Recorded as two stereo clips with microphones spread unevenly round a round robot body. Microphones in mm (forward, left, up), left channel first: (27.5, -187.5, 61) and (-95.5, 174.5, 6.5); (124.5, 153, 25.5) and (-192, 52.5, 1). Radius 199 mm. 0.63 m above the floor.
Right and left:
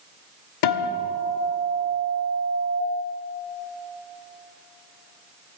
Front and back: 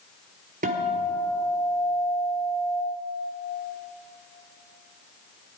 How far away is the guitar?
About 1.3 m.